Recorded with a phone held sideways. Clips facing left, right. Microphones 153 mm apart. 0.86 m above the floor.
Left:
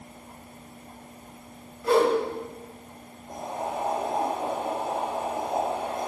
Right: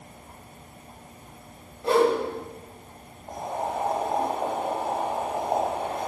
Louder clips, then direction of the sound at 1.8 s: Even; 30° right (ahead or behind).